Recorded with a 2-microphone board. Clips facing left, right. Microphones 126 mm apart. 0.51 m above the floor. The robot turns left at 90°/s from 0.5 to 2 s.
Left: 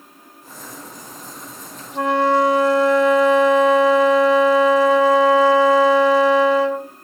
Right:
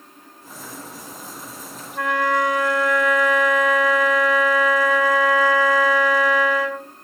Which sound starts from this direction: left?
A flute, at 1.9 s.